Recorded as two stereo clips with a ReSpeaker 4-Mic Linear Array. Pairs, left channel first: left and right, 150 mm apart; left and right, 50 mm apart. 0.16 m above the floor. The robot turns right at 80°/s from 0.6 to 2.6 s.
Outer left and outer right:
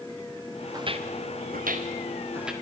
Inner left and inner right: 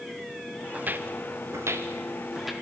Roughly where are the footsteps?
Right.